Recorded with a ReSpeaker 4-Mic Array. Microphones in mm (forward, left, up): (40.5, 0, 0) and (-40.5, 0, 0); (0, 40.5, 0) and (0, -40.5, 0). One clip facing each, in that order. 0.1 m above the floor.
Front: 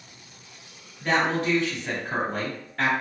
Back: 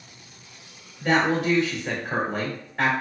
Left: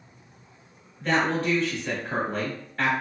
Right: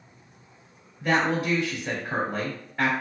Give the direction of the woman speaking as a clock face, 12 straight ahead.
5 o'clock.